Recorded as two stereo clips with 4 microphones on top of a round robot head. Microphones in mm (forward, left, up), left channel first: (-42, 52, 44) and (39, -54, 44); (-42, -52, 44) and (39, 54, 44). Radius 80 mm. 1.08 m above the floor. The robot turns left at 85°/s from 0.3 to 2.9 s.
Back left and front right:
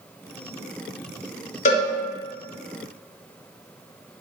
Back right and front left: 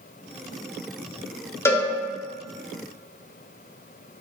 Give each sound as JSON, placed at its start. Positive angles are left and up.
{"t": 1.6, "sound": "a cowbell", "azimuth_deg": 160, "distance_m": 1.3}